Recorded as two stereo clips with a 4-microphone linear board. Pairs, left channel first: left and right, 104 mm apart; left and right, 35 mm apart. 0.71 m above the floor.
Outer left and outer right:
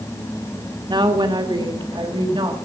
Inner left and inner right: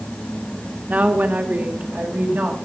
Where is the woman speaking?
45° right (ahead or behind), 1.8 m; by 2.5 s 50° right (ahead or behind), 4 m.